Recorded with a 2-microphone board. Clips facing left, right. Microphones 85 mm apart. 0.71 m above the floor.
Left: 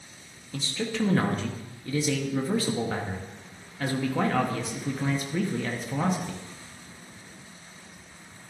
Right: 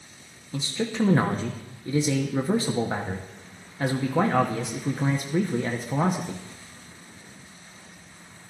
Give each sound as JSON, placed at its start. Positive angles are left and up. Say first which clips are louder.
{"t": 0.5, "sound": "a man speaking", "louder": "right 3 dB", "side_deg": -20, "distance_m": 1.0}